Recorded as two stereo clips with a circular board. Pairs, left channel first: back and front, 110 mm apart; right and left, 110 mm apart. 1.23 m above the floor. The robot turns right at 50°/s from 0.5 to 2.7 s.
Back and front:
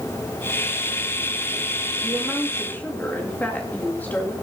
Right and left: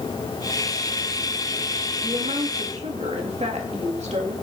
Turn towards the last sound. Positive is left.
turn(degrees=105)